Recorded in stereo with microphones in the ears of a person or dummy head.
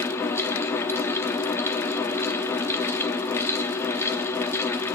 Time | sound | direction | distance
0.0 | a fan | 15° left (ahead or behind) | 1.0 m